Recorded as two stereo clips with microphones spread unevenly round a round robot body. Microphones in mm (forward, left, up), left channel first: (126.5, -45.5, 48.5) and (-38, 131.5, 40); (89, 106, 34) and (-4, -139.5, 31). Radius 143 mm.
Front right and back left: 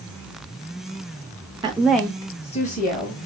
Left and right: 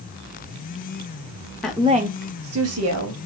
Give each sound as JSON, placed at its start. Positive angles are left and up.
{"t": 1.6, "sound": "a woman speaking", "azimuth_deg": 155, "distance_m": 0.5}